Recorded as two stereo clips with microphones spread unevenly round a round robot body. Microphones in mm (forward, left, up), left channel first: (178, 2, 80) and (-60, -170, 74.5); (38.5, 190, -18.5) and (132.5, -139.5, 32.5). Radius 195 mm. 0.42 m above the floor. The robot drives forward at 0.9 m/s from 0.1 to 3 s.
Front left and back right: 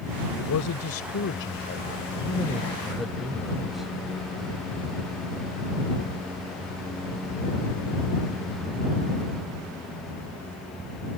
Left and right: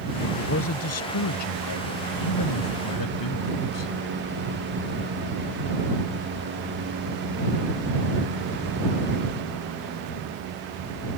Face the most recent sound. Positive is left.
turn(degrees=125)